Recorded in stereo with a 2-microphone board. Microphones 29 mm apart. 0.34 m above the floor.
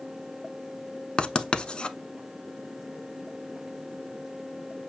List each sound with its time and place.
1.2 s writing: 40° left (ahead or behind), 0.6 m